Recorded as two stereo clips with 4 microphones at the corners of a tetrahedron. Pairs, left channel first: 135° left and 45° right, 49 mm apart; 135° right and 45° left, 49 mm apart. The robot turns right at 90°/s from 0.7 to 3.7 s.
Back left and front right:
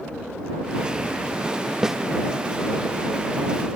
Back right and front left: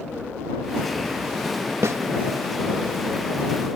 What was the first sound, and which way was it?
A snare drum, 30° left.